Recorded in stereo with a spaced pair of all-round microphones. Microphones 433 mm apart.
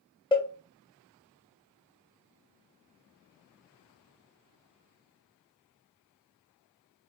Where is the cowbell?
10° left (ahead or behind), 0.9 m.